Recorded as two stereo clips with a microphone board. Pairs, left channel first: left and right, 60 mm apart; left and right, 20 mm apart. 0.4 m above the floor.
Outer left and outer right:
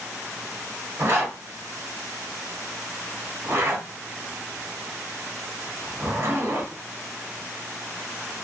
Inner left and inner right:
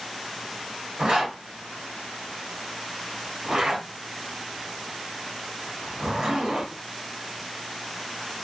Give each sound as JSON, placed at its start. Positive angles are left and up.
{"t": 1.0, "sound": "a zipper", "side_deg": -45, "distance_m": 1.3}